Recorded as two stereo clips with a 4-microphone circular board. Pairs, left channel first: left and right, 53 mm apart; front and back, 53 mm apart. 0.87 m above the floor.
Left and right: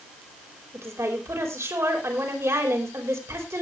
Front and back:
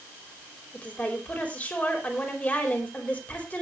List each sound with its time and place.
0.7 s a woman speaking: 65° right, 4.5 m